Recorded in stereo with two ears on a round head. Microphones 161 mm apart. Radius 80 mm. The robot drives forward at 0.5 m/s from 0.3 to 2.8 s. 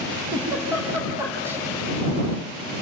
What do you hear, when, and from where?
0.3 s a giggle: 10° right (ahead or behind), 5 m; by 1.6 s 15° right (ahead or behind), 4.5 m